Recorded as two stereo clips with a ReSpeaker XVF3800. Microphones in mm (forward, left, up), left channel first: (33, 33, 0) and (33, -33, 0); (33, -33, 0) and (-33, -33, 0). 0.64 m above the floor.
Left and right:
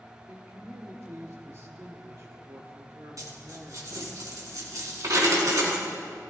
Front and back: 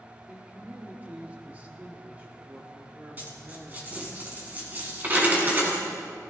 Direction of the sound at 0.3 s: 120° right.